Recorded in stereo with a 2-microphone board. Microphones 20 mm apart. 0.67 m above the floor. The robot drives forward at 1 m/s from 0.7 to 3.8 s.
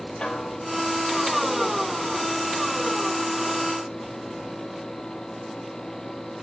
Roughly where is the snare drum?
Left.